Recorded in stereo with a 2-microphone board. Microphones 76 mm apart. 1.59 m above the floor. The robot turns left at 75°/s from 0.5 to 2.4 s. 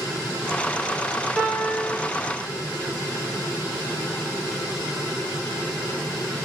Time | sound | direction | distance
1.4 | a piano | 5° right | 3 m